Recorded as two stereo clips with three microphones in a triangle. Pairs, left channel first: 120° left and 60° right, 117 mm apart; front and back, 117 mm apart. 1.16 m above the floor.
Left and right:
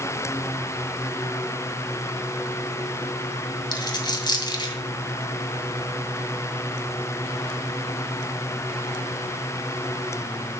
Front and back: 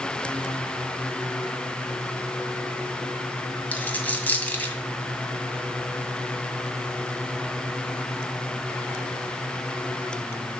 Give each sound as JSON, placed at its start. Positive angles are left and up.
{"t": 3.7, "sound": "a dropped coin", "azimuth_deg": 75, "distance_m": 1.6}